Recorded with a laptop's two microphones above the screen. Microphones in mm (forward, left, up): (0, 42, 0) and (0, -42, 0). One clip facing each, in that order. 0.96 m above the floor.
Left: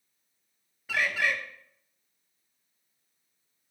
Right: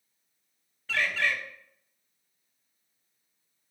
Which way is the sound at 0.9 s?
10° left (ahead or behind).